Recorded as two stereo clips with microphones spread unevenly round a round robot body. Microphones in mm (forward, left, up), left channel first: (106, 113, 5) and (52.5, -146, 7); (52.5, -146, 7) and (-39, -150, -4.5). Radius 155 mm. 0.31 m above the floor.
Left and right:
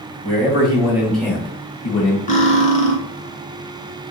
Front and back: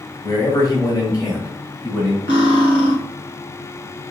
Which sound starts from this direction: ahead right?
A man speaking, at 0.2 s.